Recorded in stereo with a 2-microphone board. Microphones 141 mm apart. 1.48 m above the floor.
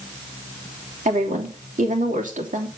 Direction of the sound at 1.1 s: 80° right.